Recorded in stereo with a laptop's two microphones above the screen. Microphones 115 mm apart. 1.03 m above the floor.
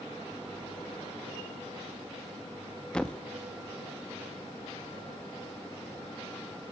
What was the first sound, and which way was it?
A thud, 10° left (ahead or behind).